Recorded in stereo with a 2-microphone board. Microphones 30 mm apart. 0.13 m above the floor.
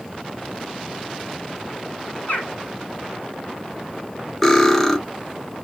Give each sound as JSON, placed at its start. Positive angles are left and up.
{"t": 2.3, "sound": "a bird", "side_deg": 70, "distance_m": 1.1}
{"t": 4.4, "sound": "cutlery clinking", "side_deg": 10, "distance_m": 0.7}